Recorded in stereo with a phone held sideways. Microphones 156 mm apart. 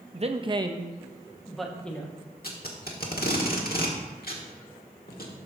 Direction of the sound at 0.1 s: 45° right (ahead or behind).